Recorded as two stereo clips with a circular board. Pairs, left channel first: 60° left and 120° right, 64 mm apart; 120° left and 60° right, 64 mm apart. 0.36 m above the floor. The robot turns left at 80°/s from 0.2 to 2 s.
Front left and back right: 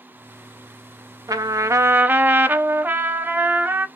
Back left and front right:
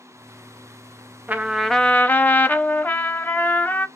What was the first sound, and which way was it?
A trumpet, 120° right.